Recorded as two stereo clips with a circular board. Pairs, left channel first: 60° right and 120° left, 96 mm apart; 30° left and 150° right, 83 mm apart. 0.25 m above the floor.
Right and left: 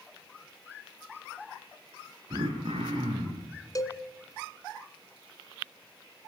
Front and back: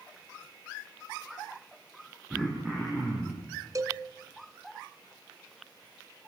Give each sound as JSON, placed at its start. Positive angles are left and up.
{"t": 2.3, "sound": "throat clearing", "azimuth_deg": 140, "distance_m": 10.0}
{"t": 3.8, "sound": "a cowbell", "azimuth_deg": -110, "distance_m": 1.8}